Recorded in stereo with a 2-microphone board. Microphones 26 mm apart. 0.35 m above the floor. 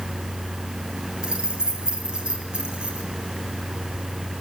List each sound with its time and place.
1.2 s keys jangling: 35° right (ahead or behind), 4.5 m